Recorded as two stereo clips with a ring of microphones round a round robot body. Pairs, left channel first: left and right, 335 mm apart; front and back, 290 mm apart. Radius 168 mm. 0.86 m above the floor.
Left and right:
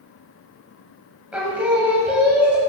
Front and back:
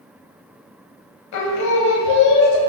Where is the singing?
5° right, 1.0 m.